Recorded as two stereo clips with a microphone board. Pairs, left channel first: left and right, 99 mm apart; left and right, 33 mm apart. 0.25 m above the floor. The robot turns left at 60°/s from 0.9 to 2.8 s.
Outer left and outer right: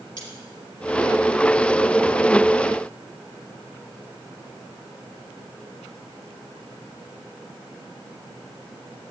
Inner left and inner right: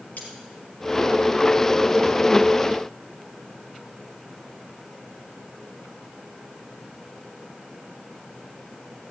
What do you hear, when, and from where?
0.2 s cutlery clinking: 45° left (ahead or behind), 4 m